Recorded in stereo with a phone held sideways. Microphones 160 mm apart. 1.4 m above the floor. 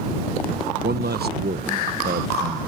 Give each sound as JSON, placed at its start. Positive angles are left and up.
{"t": 0.8, "sound": "a man speaking", "side_deg": -85}